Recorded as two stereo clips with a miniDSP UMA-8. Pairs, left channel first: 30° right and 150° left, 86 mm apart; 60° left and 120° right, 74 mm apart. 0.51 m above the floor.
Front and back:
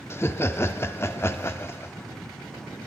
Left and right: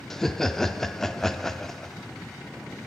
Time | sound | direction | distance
0.1 | laughter | 20° right | 0.7 m